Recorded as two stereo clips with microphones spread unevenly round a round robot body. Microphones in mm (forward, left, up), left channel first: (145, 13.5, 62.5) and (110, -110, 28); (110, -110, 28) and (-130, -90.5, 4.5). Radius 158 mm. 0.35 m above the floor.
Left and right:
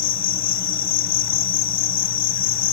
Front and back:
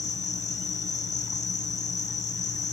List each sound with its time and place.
0.0 s an insect: 65° left, 1.0 m